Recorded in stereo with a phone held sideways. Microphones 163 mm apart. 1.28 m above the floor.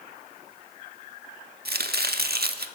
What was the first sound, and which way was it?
Chopping, 75° right (ahead or behind).